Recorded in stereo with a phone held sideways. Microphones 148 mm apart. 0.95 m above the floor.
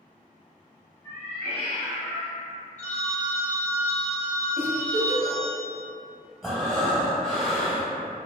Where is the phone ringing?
50° left (ahead or behind), 0.9 m.